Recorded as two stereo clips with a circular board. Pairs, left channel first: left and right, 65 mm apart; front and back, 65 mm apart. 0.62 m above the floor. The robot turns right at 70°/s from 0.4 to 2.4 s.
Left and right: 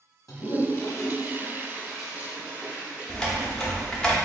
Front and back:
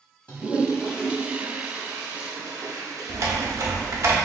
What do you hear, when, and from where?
0.3 s a toilet flushing: 65° left, 1.3 m; by 4.1 s 155° right, 1.3 m
3.1 s typing on a keyboard: 165° left, 0.9 m